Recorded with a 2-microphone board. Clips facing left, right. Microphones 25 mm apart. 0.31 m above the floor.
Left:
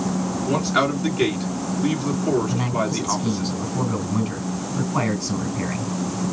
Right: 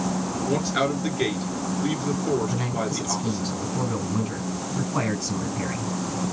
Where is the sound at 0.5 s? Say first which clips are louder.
Left 3 dB; 70° left (ahead or behind), 3 m.